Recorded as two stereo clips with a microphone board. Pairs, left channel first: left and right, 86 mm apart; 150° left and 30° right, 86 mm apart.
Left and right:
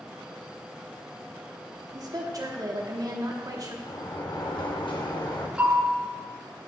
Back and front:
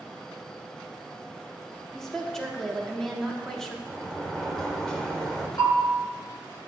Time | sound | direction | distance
1.9 | a woman speaking | 125° right | 0.9 m
3.9 | a sliding door | 70° left | 0.7 m
5.6 | a bell | 165° right | 2.5 m